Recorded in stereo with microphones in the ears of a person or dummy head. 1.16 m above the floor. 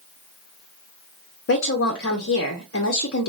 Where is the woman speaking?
55° left (ahead or behind), 0.7 m.